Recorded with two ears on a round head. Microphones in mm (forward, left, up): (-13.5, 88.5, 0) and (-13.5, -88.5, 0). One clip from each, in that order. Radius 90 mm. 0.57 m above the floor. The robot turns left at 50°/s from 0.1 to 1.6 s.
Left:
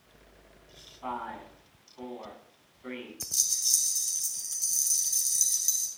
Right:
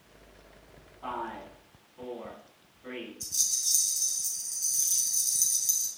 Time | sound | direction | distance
1.0 | a man speaking | 20° left (ahead or behind) | 5.5 m
3.2 | a rattle | 75° left (ahead or behind) | 4 m